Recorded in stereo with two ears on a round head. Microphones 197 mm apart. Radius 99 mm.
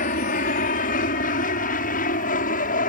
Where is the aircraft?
35° left (ahead or behind).